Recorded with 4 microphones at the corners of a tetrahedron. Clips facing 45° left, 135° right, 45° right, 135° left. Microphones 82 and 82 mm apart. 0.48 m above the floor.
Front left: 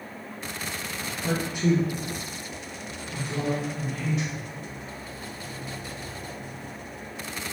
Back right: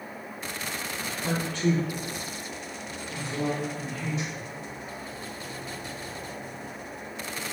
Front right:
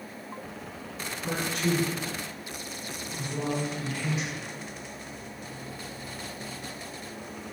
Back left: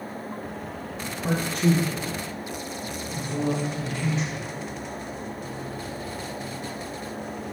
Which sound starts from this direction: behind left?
A man speaking, at 1.2 s.